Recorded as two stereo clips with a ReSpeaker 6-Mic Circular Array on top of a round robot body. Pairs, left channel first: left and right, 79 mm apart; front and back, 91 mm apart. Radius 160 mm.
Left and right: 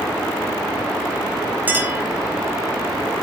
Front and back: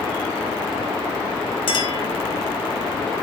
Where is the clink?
20° right, 4.5 m.